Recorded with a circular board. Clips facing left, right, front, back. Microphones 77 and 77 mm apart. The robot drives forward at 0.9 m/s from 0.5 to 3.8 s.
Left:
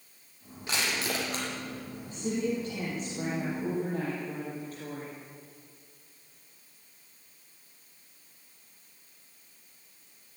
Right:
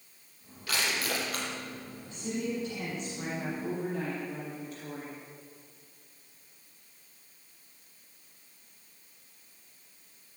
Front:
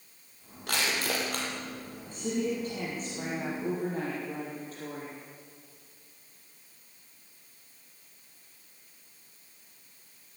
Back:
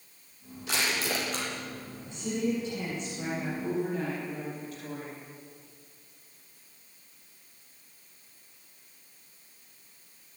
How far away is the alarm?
No alarm in this recording.